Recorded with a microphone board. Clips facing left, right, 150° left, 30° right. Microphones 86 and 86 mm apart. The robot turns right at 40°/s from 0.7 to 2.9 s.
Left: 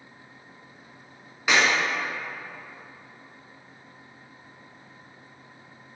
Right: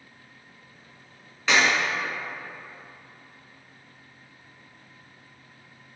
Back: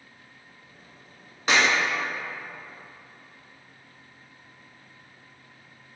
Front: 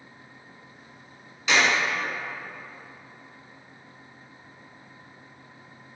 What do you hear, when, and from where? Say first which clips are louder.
1.5 s a clap: even, even; 165° left, 1.3 m; by 1.6 s 170° left, 1.3 m